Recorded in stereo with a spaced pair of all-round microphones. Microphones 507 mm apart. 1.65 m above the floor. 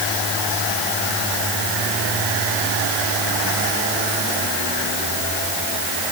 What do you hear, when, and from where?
Only background noise.